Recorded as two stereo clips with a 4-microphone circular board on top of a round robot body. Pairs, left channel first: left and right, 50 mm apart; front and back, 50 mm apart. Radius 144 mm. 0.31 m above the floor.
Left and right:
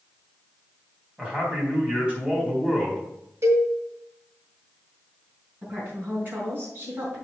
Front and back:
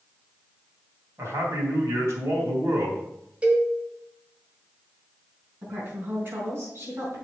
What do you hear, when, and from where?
1.2 s a man speaking: 155° right, 3.5 m
3.4 s a cowbell: 115° right, 1.9 m
5.6 s a woman speaking: 140° right, 4.5 m